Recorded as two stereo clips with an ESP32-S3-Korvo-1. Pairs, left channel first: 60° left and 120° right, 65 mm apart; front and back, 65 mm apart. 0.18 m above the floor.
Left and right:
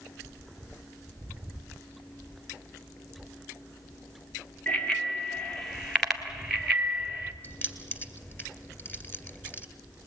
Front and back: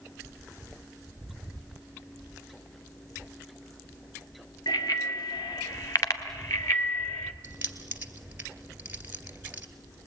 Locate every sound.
4.7 s a bicycle bell: 15° right, 2.5 m; by 7.3 s 50° right, 2.5 m
7.4 s keys jangling: 120° left, 2 m